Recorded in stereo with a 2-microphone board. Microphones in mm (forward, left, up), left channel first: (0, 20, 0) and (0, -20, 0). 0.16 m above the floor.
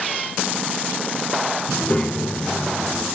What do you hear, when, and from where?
1.7 s a child speaking: 20° left (ahead or behind), 1.0 m; by 3.0 s 60° left (ahead or behind), 1.2 m